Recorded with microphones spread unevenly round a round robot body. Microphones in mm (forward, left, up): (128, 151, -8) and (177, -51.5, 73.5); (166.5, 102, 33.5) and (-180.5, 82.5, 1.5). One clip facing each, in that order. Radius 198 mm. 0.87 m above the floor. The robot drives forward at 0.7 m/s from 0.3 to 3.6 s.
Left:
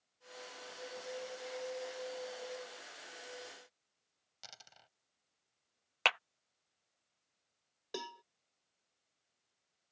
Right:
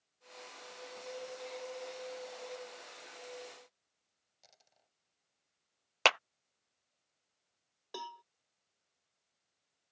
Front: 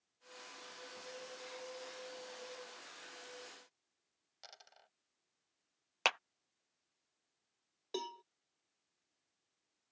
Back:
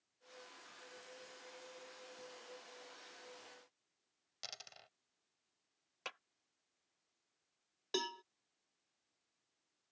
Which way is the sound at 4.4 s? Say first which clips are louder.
Left 8 dB, back 4 dB; 145° left.